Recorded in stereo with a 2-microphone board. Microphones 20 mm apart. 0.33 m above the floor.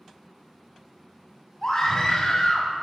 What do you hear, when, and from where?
1.6 s a scream: 30° left (ahead or behind), 2.5 m; by 2.7 s 55° left (ahead or behind), 2.0 m